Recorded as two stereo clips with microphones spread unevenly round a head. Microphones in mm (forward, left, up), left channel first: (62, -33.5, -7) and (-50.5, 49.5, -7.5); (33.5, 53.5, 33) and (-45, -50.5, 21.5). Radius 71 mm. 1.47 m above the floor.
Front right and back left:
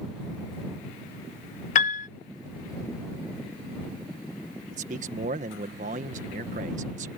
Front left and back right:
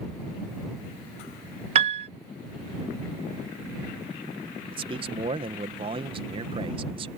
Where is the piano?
80° right.